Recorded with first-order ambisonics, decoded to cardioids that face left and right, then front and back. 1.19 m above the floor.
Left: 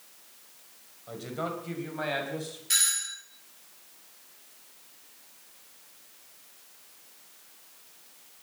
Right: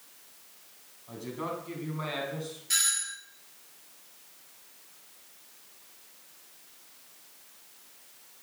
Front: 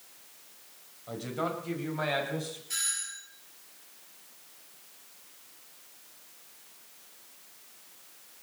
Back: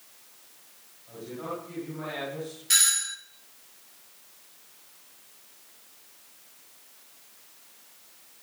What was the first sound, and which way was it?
A man speaking, 40° left.